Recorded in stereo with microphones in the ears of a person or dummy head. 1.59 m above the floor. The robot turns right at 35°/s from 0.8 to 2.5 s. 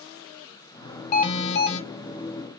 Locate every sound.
1.1 s an alarm: 40° left (ahead or behind), 0.7 m; by 1.8 s 60° left (ahead or behind), 0.7 m